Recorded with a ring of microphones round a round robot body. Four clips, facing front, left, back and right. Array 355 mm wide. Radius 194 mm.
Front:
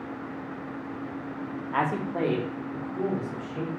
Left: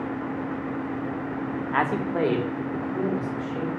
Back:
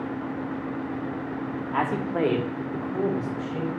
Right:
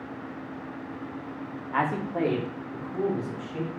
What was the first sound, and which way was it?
A man speaking, 75° left.